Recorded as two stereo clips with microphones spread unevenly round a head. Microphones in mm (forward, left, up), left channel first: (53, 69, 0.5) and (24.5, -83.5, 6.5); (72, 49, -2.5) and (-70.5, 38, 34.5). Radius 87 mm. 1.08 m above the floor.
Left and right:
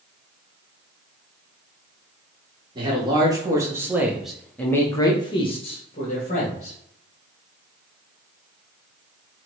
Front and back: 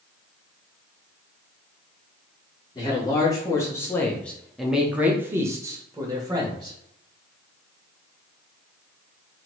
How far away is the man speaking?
About 1.3 m.